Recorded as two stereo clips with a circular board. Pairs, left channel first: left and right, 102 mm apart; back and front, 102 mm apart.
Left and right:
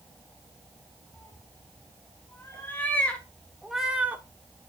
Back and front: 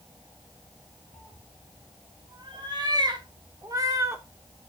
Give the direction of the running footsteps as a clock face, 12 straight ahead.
No running footsteps in this recording.